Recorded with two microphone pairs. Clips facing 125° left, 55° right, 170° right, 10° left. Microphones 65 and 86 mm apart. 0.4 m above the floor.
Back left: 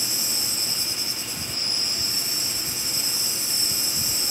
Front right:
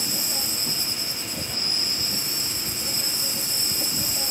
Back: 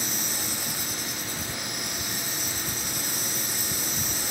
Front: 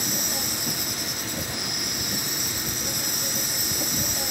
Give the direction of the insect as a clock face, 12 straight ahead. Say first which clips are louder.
Front right 2 dB, front 3 dB; 12 o'clock.